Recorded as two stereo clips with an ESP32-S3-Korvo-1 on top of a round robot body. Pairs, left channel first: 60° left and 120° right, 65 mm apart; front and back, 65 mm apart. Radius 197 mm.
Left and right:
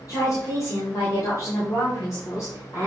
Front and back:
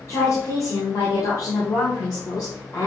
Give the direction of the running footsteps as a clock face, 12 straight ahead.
I don't hear running footsteps.